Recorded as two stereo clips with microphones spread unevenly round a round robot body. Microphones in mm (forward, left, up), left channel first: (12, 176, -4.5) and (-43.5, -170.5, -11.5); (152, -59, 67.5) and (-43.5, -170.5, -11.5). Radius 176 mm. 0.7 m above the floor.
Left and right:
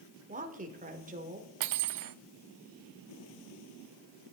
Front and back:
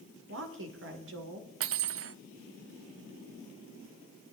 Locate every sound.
0.3 s a woman speaking: 165° right, 2 m
1.6 s cutlery clinking: 140° right, 0.6 m